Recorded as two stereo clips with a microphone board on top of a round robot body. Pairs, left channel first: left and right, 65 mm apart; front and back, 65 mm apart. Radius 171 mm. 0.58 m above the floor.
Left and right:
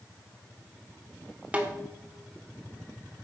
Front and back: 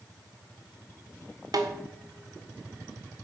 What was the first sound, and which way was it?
A snare drum, 160° right.